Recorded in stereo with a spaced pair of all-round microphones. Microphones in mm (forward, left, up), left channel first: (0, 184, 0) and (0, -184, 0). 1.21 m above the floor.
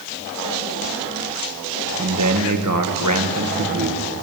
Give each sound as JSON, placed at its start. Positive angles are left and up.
{"t": 2.0, "sound": "a man speaking", "side_deg": -60, "distance_m": 1.3}